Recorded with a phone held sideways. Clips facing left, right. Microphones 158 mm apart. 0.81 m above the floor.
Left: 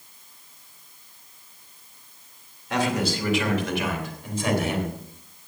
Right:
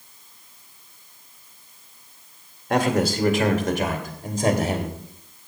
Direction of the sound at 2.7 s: 55° right (ahead or behind).